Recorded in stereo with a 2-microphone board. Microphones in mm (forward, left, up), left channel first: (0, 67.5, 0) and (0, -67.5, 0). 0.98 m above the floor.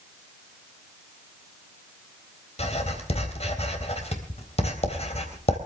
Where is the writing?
50° left (ahead or behind), 3.5 m.